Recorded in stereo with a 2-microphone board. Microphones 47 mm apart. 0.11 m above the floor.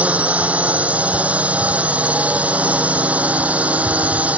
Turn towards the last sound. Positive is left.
turn(degrees=-30)  # may be behind; listen again after turning